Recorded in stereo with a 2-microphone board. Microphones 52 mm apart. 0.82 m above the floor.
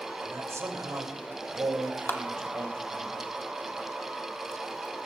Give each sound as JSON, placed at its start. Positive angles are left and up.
{"t": 0.2, "sound": "a man speaking", "side_deg": -70, "distance_m": 2.5}
{"t": 2.1, "sound": "a clap", "side_deg": 50, "distance_m": 1.8}